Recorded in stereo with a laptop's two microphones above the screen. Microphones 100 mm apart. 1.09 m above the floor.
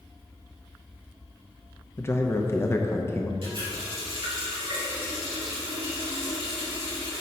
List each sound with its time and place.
2.0 s a man speaking: 25° left (ahead or behind), 0.8 m
3.4 s a running tap: 60° right (ahead or behind), 2 m